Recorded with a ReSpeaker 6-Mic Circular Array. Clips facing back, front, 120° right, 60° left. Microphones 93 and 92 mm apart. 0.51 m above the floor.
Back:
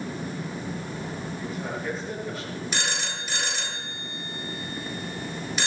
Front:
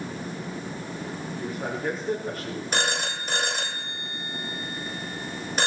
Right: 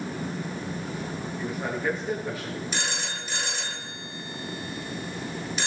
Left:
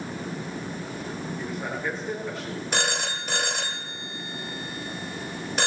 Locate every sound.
1.4 s a man speaking: 40° right, 7 m; by 2.6 s 45° right, 7.5 m
2.7 s a phone ringing: 40° left, 1.9 m